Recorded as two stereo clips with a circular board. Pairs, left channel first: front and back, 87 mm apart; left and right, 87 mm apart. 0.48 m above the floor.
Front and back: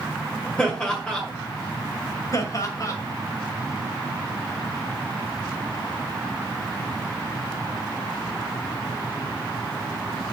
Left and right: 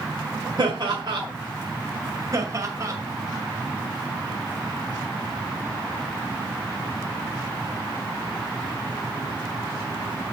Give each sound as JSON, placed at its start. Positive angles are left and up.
{"t": 0.6, "sound": "laughter", "azimuth_deg": -75, "distance_m": 1.9}
{"t": 2.3, "sound": "laughter", "azimuth_deg": -45, "distance_m": 2.0}